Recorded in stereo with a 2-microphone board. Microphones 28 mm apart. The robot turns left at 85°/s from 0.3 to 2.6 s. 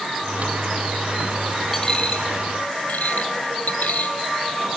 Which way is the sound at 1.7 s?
15° left (ahead or behind).